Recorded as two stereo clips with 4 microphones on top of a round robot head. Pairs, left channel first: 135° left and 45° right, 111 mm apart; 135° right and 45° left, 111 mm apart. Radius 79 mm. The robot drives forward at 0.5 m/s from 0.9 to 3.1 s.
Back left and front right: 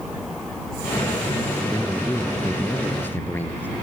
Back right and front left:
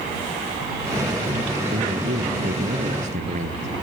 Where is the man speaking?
60° left.